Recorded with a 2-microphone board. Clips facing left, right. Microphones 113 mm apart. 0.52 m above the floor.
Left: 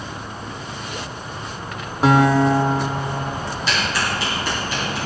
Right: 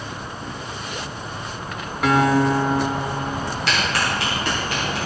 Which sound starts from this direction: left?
A guitar, at 2.0 s.